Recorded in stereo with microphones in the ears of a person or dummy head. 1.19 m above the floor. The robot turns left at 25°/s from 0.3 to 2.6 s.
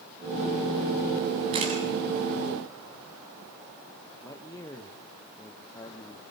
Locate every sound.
1.5 s a camera shutter: 30° right (ahead or behind), 8 m; by 1.8 s 35° right (ahead or behind), 8 m
4.2 s a man speaking: 15° left (ahead or behind), 1.4 m